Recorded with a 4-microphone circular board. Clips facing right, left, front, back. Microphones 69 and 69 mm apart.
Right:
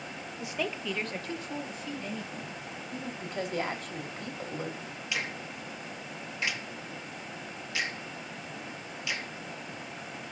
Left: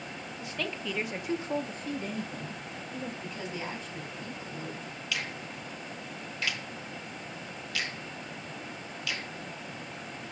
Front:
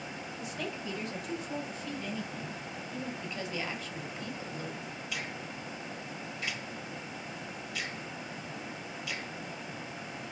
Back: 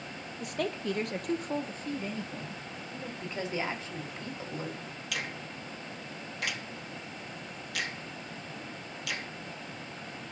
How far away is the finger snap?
About 0.9 m.